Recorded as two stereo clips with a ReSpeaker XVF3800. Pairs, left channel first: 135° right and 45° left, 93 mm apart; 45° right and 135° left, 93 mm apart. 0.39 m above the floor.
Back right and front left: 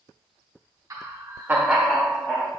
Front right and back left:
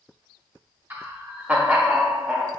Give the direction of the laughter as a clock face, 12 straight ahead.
10 o'clock.